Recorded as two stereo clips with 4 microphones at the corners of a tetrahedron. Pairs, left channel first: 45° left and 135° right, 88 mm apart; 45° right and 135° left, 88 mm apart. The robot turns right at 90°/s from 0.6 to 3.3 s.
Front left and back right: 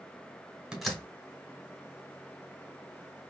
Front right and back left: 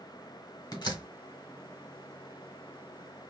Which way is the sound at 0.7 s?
55° right.